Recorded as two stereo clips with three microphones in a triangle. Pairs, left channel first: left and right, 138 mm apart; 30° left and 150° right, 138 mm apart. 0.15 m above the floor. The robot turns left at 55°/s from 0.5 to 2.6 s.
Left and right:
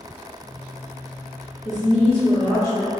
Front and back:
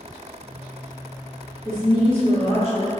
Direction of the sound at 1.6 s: 85° left.